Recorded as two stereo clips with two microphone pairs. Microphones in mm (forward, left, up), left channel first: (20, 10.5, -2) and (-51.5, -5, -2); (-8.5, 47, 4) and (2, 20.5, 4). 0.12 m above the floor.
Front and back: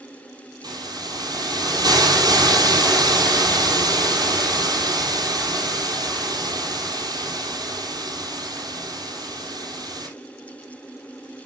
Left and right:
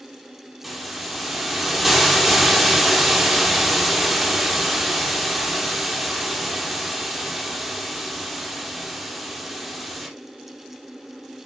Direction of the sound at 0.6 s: 155° right.